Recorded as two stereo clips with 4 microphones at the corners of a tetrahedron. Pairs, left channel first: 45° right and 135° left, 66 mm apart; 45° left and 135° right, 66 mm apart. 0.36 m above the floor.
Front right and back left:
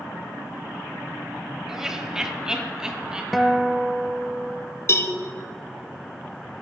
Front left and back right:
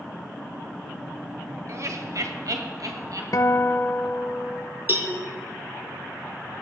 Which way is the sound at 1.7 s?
145° right.